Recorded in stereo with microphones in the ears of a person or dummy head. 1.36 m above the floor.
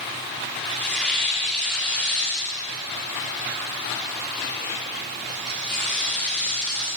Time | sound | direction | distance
0.7 | tearing paper | centre (ahead or behind) | 4.5 m